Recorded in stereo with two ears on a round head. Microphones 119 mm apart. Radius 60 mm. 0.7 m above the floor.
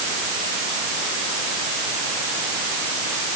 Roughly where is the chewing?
No chewing in this recording.